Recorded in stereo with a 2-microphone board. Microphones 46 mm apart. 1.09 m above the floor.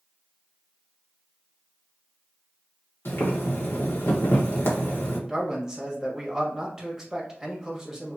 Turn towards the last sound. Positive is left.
turn(degrees=-10)  # may be behind; listen again after turning